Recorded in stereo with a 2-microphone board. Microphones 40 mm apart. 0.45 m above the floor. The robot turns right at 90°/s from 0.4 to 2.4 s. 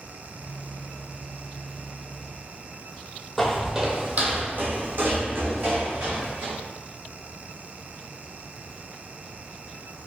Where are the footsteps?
5° left (ahead or behind), 0.6 m; by 6.5 s 75° right (ahead or behind), 1.7 m.